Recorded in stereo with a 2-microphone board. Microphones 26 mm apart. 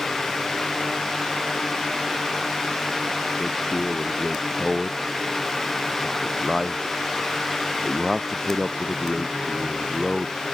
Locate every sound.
3.4 s a man speaking: 5° right (ahead or behind)